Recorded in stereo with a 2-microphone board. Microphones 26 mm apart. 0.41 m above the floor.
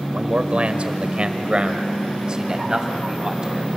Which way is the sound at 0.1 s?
55° right (ahead or behind).